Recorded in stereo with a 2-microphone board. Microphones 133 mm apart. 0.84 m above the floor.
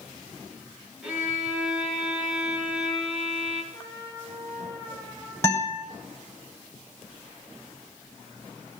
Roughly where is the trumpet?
Left.